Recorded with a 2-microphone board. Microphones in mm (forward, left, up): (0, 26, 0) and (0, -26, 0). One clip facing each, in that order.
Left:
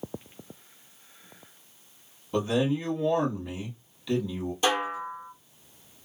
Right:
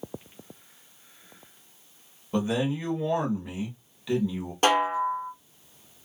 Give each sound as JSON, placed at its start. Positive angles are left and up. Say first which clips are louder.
{"t": 2.3, "sound": "a man speaking", "louder": "left 1 dB", "side_deg": -15, "distance_m": 1.7}
{"t": 4.6, "sound": "a snare drum", "louder": "right 5 dB", "side_deg": -50, "distance_m": 0.8}